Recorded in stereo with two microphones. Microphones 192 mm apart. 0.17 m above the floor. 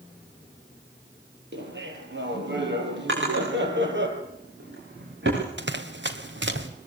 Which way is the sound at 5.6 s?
70° right (ahead or behind).